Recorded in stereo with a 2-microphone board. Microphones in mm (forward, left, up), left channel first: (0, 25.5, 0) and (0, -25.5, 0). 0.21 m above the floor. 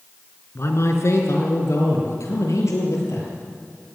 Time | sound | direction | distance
0.6 | a man speaking | 60° left (ahead or behind) | 3 m